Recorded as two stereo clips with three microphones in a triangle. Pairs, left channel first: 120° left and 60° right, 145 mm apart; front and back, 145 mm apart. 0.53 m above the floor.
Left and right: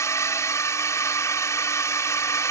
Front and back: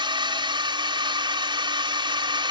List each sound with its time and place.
0.0 s a drone: 175° left